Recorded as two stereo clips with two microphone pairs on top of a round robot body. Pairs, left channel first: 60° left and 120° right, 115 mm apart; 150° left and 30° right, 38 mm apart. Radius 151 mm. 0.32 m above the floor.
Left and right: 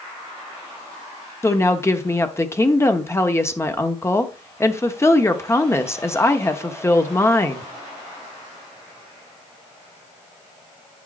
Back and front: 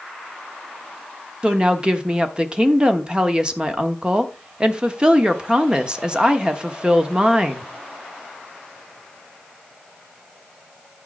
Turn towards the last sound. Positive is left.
turn(degrees=15)